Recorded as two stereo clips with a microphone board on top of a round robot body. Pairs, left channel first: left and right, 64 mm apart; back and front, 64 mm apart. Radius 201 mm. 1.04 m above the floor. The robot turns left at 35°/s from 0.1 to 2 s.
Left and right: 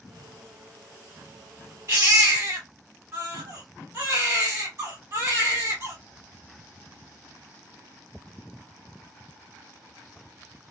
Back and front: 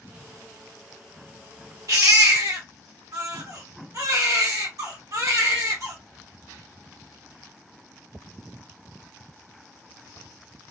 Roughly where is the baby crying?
Ahead right.